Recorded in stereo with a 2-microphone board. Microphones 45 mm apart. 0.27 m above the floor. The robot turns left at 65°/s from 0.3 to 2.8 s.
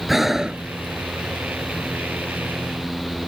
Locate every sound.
0.1 s breathing: 5° right (ahead or behind); by 0.6 s 25° right (ahead or behind)